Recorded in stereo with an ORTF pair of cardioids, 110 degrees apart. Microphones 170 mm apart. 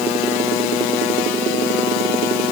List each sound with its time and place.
Only background noise.